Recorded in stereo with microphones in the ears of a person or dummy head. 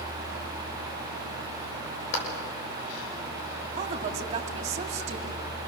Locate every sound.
2.1 s a clap: 70° left (ahead or behind), 5.5 m
3.8 s a woman speaking: 40° right (ahead or behind), 2.5 m